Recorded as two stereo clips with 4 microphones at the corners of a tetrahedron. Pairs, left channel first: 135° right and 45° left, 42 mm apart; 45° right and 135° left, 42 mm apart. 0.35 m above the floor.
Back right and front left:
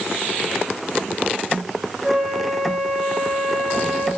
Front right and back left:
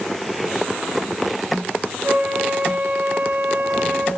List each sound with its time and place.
2.0 s a flute: 130° left, 2.5 m